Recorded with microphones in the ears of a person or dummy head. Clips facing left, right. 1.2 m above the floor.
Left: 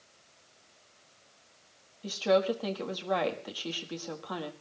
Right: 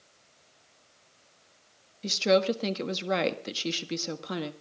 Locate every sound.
2.0 s a woman speaking: 40° right (ahead or behind), 1.6 m